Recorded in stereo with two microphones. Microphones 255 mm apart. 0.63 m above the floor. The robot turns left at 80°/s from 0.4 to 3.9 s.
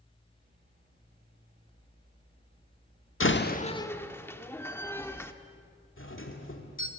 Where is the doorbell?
55° left (ahead or behind), 2.5 m.